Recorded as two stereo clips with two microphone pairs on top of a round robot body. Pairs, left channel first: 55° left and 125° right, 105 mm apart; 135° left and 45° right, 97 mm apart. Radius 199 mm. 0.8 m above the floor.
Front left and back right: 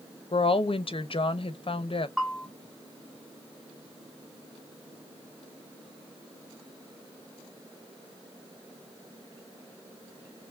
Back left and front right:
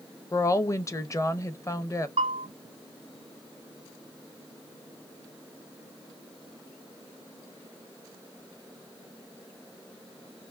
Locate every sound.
0.3 s a woman speaking: 75° left, 1.0 m
2.2 s a bell: 50° right, 0.8 m